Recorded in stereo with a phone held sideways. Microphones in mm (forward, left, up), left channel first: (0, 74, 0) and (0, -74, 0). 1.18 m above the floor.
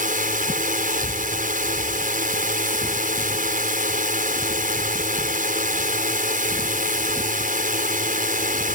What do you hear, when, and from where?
0.0 s a drone: 65° right (ahead or behind)